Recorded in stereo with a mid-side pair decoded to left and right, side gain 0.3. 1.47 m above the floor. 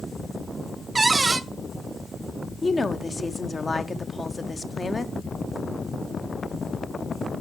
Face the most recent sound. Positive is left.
turn(degrees=35)